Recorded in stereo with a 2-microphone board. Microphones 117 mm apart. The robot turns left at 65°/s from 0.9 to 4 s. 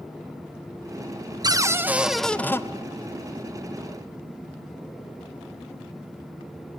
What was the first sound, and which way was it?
A cupboard door, 135° right.